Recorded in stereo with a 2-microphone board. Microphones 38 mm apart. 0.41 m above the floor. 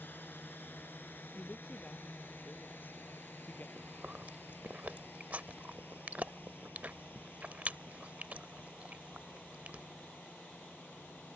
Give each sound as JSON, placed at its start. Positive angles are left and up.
{"t": 0.0, "sound": "a drone", "side_deg": 70}
{"t": 1.4, "sound": "a woman speaking", "side_deg": 60}
{"t": 3.8, "sound": "chewing", "side_deg": -45}